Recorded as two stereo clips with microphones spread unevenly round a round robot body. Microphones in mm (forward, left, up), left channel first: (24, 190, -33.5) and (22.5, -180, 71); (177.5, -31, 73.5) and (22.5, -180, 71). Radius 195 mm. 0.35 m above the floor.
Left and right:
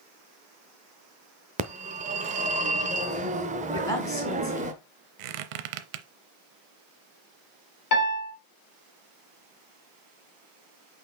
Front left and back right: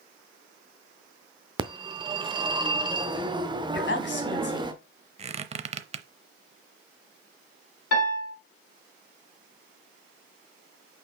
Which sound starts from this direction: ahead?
A woman speaking, at 3.7 s.